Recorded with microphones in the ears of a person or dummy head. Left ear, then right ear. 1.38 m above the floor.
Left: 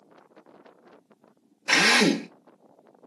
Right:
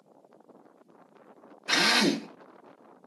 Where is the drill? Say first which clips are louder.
Left 4 dB; 35° left (ahead or behind), 0.9 m.